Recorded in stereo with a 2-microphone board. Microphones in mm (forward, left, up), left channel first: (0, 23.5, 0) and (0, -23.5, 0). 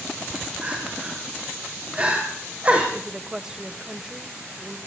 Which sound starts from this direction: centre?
A woman speaking, at 2.9 s.